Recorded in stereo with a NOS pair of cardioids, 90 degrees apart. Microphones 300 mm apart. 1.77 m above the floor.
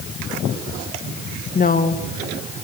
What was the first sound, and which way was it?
A woman speaking, 30° left.